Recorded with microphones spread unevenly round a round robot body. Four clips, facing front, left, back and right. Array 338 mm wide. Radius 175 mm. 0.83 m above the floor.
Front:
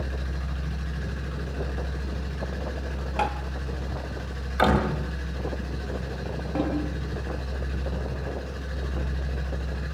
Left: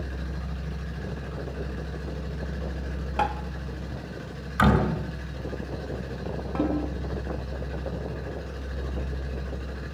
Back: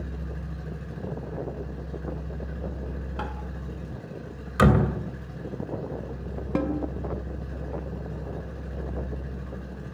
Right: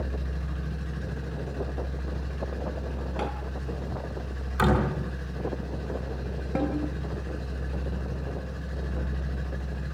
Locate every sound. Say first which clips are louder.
3.2 s tapping: left 7 dB, front 9 dB; 80° left, 2 m
4.6 s a door slam: left 2 dB, back 1 dB; 165° left, 3.5 m
6.5 s a snare drum: left 2 dB, back 1 dB; 155° right, 3 m